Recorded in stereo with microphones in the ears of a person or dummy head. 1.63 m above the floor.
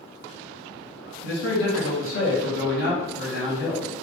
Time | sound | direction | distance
1.2 | a man speaking | 85° left | 2 m